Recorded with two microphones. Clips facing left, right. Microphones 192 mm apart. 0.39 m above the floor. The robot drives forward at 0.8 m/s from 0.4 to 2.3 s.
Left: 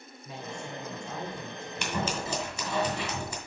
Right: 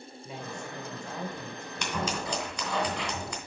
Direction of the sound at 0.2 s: 20° right (ahead or behind).